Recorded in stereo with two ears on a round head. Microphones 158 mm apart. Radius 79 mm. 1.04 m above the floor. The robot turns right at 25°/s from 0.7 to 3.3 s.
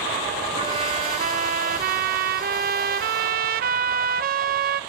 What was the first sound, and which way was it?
A trumpet, 140° right.